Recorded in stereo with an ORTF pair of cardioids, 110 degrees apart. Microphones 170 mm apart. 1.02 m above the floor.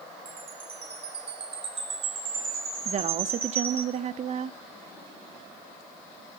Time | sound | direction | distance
0.2 | a chime | 35° right | 9.5 m
2.9 | a woman speaking | 40° right | 1.5 m